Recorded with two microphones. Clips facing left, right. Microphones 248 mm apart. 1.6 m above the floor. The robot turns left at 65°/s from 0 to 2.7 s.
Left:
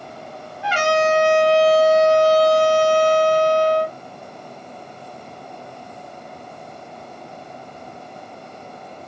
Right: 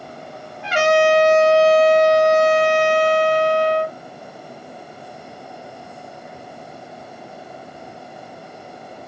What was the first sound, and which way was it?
A trumpet, 115° right.